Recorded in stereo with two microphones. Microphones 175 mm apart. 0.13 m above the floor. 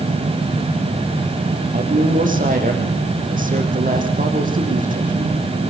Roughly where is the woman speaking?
Right.